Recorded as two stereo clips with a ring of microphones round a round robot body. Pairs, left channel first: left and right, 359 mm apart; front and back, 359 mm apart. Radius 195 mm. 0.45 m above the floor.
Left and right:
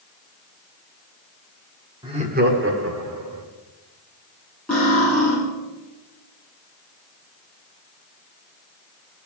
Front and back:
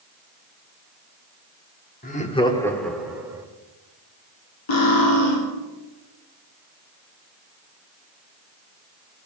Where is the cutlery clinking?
Straight ahead, 6.5 m.